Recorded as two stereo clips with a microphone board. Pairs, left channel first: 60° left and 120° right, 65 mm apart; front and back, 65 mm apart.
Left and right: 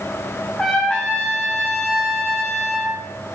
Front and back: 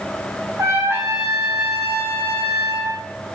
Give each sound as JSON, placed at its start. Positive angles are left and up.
{"t": 0.6, "sound": "a trumpet", "azimuth_deg": 140, "distance_m": 6.0}